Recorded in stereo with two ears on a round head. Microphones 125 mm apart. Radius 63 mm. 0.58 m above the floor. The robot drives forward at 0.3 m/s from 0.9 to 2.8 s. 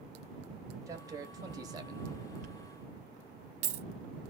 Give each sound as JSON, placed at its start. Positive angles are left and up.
{"t": 0.9, "sound": "a man speaking", "side_deg": -25, "distance_m": 0.8}
{"t": 2.4, "sound": "a dropped coin", "side_deg": -60, "distance_m": 0.7}